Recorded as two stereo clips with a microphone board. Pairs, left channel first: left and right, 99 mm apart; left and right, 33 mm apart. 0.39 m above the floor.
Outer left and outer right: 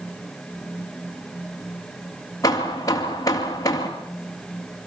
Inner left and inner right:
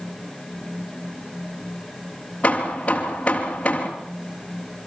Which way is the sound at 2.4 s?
40° left (ahead or behind).